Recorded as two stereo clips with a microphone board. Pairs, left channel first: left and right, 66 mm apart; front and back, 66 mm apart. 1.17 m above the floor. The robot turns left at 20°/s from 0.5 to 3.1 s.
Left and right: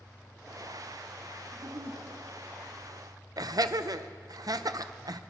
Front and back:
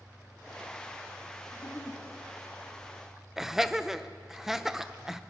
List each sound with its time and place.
1.5 s a giggle: 55° right, 1.1 m; by 2.0 s 65° right, 1.1 m
3.4 s laughter: 95° right, 0.6 m